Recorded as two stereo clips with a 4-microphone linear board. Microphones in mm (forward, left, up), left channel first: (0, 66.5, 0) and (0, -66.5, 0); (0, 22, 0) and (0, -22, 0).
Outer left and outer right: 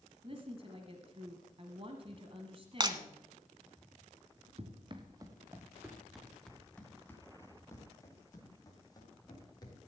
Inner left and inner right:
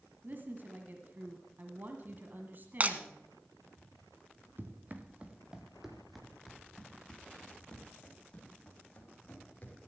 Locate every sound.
0.2 s a woman speaking: 50° right (ahead or behind), 1.5 m
2.8 s breaking glass: 35° right (ahead or behind), 1.1 m
4.6 s running footsteps: 50° right (ahead or behind), 2.0 m; by 9.8 s 30° left (ahead or behind), 6 m